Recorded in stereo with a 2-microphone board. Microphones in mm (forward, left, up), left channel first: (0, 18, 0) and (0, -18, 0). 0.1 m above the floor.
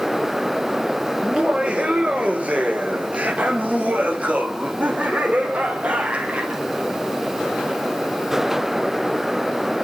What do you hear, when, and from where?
1.2 s laughter: 25° right (ahead or behind), 2 m; by 6.6 s 35° right (ahead or behind), 4 m